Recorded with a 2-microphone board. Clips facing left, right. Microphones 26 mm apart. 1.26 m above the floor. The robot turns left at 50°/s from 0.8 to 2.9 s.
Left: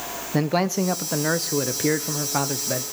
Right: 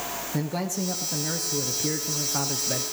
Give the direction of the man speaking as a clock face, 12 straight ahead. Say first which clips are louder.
Left 9 dB; 8 o'clock.